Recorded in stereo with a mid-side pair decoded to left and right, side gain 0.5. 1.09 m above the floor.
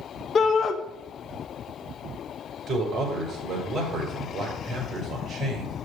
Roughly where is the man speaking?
Ahead right.